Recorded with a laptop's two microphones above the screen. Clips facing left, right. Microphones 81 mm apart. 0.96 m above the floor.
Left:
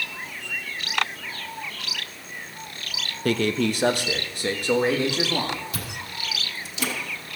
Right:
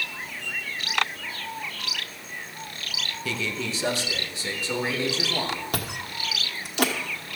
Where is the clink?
I don't hear a clink.